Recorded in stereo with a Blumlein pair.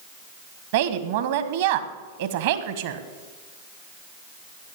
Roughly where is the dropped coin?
I don't hear a dropped coin.